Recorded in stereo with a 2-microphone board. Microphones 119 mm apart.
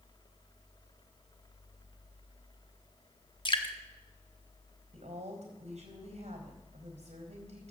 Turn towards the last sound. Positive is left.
turn(degrees=-70)  # may be behind; listen again after turning